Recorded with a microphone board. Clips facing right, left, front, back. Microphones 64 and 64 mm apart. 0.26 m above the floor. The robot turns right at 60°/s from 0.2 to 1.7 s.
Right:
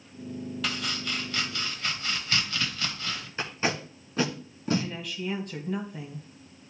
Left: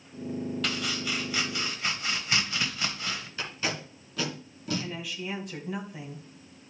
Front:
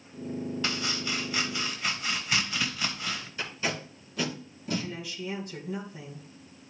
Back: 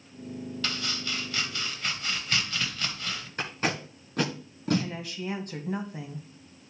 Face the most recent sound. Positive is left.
turn(degrees=175)